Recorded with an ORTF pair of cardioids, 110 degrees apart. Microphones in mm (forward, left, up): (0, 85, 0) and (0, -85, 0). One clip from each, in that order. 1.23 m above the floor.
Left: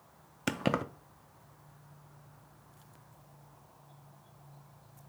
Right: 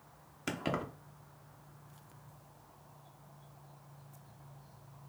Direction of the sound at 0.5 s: 30° left.